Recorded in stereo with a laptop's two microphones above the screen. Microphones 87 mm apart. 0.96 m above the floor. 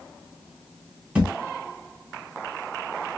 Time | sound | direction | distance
1.1 | a thud | 20° right (ahead or behind) | 1.0 m